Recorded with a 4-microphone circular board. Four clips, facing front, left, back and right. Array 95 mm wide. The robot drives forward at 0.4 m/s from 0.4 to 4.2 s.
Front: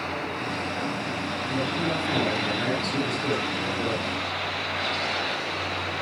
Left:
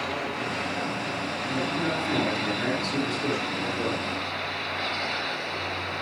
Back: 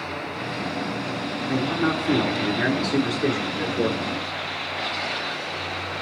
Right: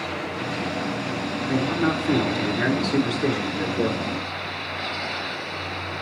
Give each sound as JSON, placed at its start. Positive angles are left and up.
{"t": 1.5, "sound": "a man speaking", "azimuth_deg": -145, "distance_m": 4.5}